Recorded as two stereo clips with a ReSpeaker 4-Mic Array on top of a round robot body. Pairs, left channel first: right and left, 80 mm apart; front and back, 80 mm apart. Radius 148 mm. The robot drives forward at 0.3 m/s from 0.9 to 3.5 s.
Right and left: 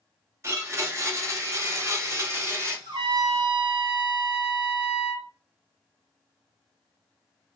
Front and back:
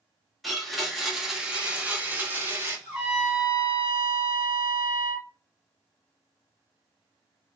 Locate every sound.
0.4 s a blender: 90° left, 1.0 m; by 2.8 s 135° left, 1.2 m
2.9 s a trumpet: 100° left, 0.8 m; by 5.3 s 115° left, 0.8 m